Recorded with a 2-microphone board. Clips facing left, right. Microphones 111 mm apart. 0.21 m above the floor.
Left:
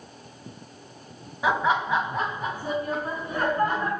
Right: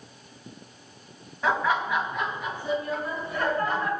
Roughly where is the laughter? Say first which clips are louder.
Left 2 dB; centre.